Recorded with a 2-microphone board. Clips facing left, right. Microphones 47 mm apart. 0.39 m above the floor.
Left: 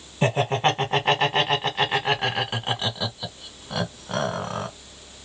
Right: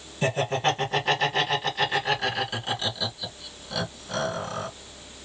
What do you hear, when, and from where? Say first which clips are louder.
0.2 s laughter: left 3 dB; 35° left (ahead or behind), 1.6 m